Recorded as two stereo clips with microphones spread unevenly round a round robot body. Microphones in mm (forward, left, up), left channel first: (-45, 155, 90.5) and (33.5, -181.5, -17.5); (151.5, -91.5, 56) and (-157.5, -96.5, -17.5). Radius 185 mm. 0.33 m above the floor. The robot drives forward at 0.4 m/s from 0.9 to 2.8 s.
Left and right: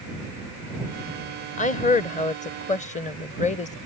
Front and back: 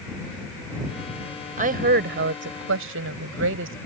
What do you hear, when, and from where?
1.6 s a woman speaking: 175° right; by 3.8 s straight behind